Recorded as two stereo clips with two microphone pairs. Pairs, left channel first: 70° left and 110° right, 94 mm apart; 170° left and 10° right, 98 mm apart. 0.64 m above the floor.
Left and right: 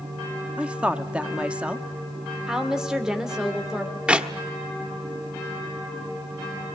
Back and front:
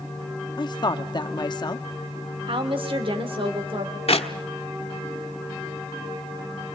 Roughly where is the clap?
Behind.